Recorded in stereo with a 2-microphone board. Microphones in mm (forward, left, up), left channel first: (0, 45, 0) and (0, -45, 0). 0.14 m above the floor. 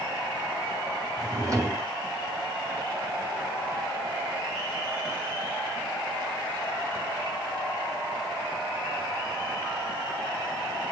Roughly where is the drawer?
Right.